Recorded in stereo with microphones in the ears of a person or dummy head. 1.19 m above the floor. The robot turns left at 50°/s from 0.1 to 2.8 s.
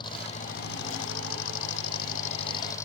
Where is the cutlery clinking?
I don't hear cutlery clinking.